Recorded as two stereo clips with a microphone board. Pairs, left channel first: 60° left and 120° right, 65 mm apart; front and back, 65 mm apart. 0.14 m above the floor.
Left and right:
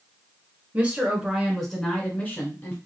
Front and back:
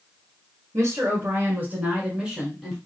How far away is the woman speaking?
About 1.6 m.